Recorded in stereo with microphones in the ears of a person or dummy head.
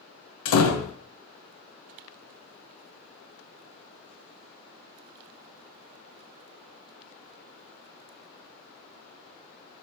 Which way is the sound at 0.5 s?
75° left (ahead or behind).